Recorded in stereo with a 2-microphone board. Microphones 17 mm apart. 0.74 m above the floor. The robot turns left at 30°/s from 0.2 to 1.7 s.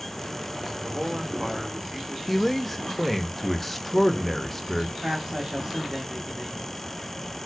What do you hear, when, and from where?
0.8 s a man speaking: 50° right (ahead or behind), 0.9 m; by 2.2 s 35° right (ahead or behind), 0.9 m
2.3 s a man speaking: 10° left (ahead or behind), 0.5 m
5.0 s a man speaking: 40° right (ahead or behind), 0.9 m